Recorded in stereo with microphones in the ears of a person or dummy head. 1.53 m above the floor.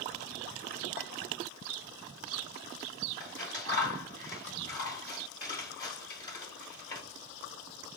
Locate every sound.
1.0 s a clink: 50° left (ahead or behind), 1.1 m
3.2 s scissors: 25° left (ahead or behind), 2.5 m